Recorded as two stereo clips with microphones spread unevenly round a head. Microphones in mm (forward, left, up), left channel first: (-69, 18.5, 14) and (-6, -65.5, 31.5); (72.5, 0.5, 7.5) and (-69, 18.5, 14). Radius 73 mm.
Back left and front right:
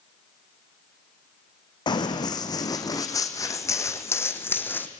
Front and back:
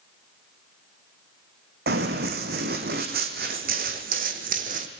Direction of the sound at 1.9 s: 175° left.